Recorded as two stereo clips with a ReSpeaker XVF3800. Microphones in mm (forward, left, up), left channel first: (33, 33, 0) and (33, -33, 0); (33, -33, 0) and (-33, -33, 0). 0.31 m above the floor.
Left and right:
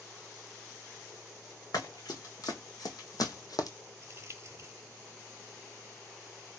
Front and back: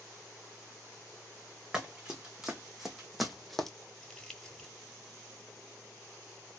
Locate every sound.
1.7 s running footsteps: 100° left, 1.7 m; by 3.7 s 85° left, 0.7 m
4.0 s crumpling: 80° right, 1.2 m